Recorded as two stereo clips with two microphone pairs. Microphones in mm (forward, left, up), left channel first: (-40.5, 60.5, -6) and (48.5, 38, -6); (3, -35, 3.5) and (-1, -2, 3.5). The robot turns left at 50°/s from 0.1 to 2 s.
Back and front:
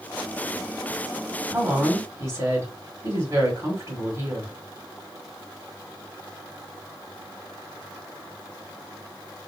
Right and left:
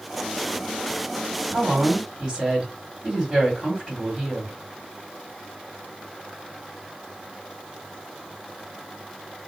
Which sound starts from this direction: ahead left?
A woman speaking, at 1.5 s.